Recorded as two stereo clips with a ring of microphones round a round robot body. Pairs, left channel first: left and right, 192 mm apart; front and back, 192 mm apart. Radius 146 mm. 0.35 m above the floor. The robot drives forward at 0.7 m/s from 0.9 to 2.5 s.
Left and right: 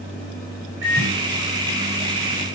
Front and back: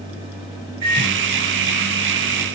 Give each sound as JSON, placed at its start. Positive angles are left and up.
{"t": 0.8, "sound": "a microwave", "azimuth_deg": -140, "distance_m": 4.5}